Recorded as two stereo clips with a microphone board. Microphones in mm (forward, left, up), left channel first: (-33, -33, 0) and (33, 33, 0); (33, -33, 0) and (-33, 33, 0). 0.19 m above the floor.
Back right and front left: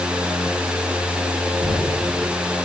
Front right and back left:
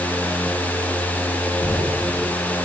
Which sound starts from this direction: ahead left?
Knocking, at 1.6 s.